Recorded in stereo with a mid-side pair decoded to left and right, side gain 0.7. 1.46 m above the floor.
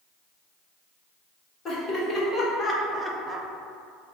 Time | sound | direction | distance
1.6 | laughter | 30° left | 1.5 m